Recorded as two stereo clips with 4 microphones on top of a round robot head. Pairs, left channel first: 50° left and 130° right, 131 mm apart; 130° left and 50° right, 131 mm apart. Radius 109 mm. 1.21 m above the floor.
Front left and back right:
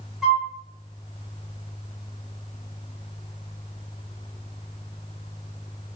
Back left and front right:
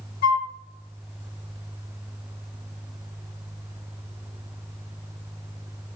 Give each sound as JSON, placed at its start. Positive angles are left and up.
{"t": 0.2, "sound": "a flute", "azimuth_deg": 140, "distance_m": 1.1}